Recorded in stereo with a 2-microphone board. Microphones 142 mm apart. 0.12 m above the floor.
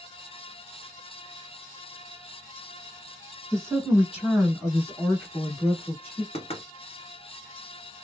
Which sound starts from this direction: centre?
A woman speaking, at 3.5 s.